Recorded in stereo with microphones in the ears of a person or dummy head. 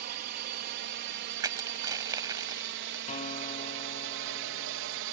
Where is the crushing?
20° right (ahead or behind).